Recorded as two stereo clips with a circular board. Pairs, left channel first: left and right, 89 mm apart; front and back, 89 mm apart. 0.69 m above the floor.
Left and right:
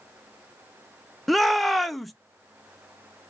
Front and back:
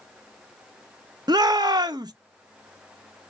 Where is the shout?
Straight behind, 0.7 m.